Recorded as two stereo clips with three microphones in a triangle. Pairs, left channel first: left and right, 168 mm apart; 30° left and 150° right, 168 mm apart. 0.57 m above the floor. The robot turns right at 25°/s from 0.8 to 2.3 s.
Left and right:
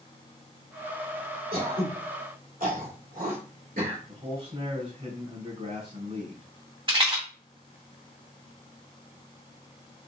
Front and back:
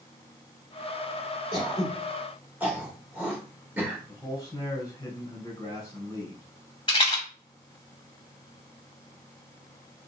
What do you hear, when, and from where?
1.5 s throat clearing: 90° right, 2 m; by 4.0 s 70° right, 2 m
4.1 s a man speaking: 40° right, 2.5 m
6.9 s a rattle: 30° right, 1.8 m